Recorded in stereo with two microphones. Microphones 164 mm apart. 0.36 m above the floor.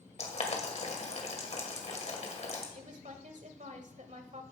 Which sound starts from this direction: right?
A woman speaking, at 2.8 s.